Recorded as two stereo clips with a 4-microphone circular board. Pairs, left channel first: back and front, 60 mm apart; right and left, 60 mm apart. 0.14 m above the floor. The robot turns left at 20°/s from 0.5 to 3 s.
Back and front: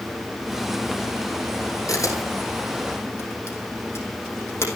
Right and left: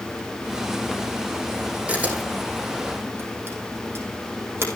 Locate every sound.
1.9 s a camera shutter: 160° left, 4.5 m; by 4.7 s 135° left, 4.5 m